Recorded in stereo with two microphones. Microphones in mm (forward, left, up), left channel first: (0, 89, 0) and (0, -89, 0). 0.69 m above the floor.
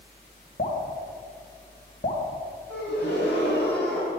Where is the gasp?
80° left, 3.5 m.